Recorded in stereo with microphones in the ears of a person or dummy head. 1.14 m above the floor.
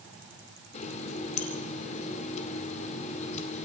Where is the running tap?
40° left (ahead or behind), 2.5 m.